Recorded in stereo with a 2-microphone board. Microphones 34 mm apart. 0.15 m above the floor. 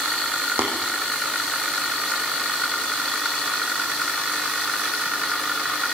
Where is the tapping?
70° right (ahead or behind), 4.5 m.